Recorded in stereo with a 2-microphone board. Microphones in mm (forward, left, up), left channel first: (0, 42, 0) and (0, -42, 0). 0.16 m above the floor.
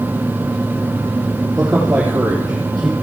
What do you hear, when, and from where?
1.6 s a man speaking: 25° right (ahead or behind), 4 m; by 2.9 s 20° right (ahead or behind), 3 m